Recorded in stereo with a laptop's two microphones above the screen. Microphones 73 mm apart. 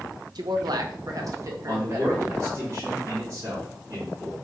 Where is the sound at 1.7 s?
50° right (ahead or behind), 2.0 m.